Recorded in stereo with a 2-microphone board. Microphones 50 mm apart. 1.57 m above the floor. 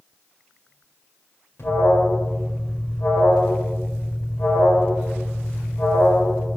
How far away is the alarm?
About 1.8 m.